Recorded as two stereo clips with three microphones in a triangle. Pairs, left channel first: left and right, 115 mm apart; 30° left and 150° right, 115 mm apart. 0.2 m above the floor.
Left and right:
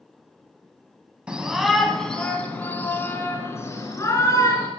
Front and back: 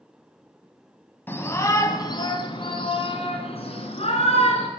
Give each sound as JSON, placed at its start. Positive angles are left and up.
{"t": 1.3, "sound": "a shout", "azimuth_deg": -20, "distance_m": 1.1}